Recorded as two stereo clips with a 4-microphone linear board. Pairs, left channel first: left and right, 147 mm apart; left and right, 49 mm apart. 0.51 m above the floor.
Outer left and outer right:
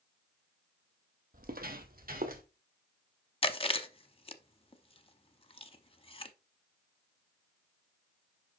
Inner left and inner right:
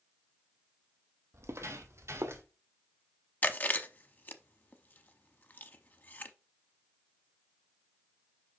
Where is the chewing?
35° left (ahead or behind), 0.7 m.